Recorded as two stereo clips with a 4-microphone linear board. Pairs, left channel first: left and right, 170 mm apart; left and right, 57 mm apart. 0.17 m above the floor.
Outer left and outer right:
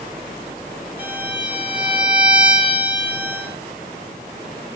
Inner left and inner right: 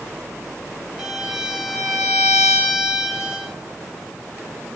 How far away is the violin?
About 0.9 m.